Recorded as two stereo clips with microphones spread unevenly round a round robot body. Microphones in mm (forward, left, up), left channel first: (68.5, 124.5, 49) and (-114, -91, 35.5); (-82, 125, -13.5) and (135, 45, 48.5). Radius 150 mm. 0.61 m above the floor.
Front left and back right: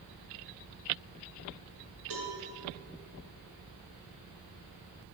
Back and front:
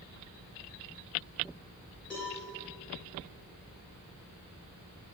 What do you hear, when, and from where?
2.1 s a cowbell: 115° right, 4 m